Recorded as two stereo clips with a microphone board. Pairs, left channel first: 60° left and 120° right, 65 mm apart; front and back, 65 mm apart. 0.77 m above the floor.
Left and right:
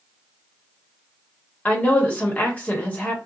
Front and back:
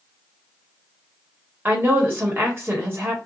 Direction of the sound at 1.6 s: 125° left.